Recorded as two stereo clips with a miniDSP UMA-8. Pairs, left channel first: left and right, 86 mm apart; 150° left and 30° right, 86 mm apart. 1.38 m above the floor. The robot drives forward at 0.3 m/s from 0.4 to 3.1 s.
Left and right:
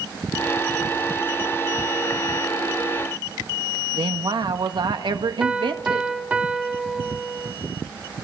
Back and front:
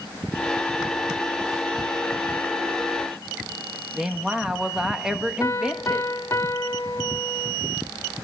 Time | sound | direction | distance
3.9 | a woman speaking | 115° right | 1.7 m
5.4 | a piano | 160° right | 1.4 m